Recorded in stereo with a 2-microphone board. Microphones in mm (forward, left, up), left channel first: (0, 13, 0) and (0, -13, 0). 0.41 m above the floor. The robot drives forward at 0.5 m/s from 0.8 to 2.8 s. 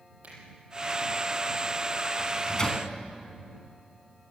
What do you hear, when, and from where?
0.2 s a finger snap: 60° right (ahead or behind), 9 m
2.2 s a microwave: 25° left (ahead or behind), 3 m